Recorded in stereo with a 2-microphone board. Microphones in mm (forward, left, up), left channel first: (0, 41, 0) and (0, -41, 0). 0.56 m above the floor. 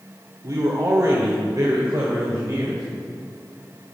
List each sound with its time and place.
0.4 s a man speaking: 50° right (ahead or behind), 2.0 m; by 2.8 s 45° right (ahead or behind), 3.5 m